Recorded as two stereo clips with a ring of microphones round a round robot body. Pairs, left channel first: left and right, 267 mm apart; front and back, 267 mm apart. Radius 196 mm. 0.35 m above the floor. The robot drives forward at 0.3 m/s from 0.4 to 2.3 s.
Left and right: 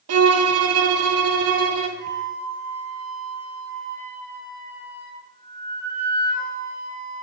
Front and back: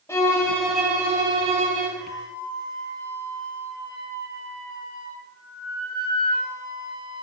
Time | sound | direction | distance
0.1 | a violin | 80° right | 0.7 m
2.0 | a flute | 20° left | 3.5 m